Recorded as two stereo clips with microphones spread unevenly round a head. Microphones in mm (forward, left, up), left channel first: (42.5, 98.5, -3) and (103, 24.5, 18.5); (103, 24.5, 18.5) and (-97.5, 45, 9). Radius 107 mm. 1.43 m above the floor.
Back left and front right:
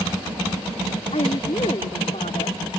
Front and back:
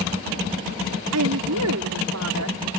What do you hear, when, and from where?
1.1 s a woman speaking: 170° right